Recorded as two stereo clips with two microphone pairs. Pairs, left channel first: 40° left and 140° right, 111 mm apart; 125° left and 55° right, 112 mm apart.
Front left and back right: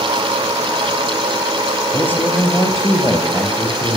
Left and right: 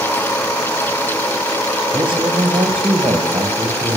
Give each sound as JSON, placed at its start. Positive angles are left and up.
{"t": 1.9, "sound": "a man speaking", "azimuth_deg": -25, "distance_m": 2.0}